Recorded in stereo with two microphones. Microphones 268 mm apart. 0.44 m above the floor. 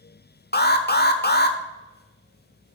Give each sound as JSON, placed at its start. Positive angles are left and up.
{"t": 0.5, "sound": "an alarm", "side_deg": 40, "distance_m": 1.0}